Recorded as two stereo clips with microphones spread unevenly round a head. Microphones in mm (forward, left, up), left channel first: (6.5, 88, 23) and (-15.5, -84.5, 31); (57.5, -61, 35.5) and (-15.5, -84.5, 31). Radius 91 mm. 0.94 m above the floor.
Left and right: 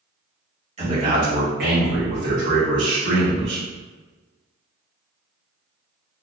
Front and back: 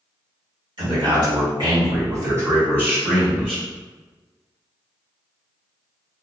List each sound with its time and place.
0.8 s a man speaking: 155° right, 1.3 m; by 3.6 s 80° right, 1.3 m